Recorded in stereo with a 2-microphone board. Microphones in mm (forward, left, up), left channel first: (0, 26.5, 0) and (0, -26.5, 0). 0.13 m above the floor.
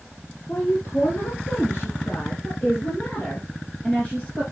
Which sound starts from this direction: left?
A woman speaking, at 0.5 s.